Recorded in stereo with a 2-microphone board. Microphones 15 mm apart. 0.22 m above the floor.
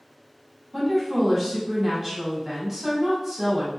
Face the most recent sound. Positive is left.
turn(degrees=-20)  # may be behind; listen again after turning